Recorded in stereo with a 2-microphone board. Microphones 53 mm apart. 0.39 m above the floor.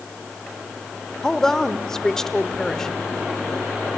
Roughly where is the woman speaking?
Centre.